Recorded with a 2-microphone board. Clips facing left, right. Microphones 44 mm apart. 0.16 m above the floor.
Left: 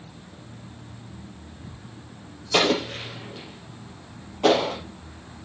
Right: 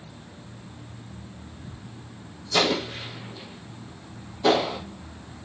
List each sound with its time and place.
2.5 s an explosion: 60° left (ahead or behind), 4.5 m